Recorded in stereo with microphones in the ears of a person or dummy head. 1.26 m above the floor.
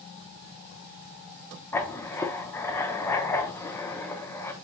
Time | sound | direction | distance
1.7 | writing | 15° left (ahead or behind) | 0.6 m